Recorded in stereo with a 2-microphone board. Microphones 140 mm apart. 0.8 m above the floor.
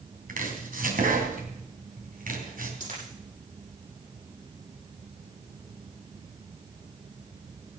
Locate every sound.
0.3 s chopping: 80° right, 3 m
2.8 s a dropped coin: 70° right (ahead or behind), 8 m